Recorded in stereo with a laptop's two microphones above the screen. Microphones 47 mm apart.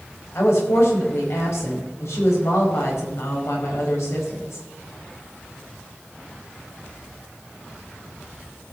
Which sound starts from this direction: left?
A woman speaking, at 0.3 s.